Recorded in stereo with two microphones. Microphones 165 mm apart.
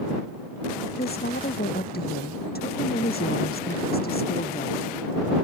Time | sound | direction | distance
1.0 | a woman speaking | 70° left (ahead or behind) | ?